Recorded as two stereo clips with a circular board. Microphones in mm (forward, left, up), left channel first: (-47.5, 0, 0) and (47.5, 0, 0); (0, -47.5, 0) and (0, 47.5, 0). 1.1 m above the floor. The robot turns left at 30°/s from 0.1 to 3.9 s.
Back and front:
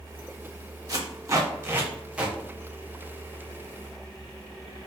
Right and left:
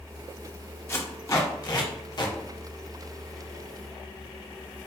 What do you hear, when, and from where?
0.9 s tape being pulled: 35° right, 0.5 m; by 2.4 s 80° right, 0.5 m